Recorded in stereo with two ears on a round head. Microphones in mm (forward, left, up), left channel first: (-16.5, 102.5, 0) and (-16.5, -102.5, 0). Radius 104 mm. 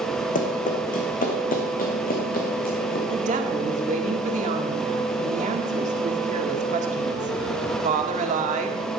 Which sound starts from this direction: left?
Running footsteps, at 0.3 s.